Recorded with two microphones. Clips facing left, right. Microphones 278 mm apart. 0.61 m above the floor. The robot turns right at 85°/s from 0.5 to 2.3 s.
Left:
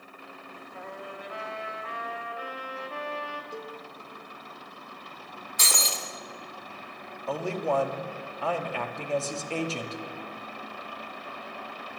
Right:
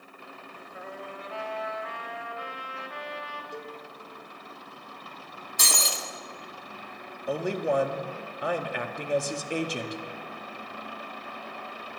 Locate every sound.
0.7 s a trumpet: 20° right, 1.3 m; by 3.4 s 115° left, 1.3 m
3.5 s a cowbell: 5° left (ahead or behind), 0.6 m
5.6 s breaking glass: 50° right (ahead or behind), 1.1 m
7.3 s a man speaking: 15° right (ahead or behind), 0.7 m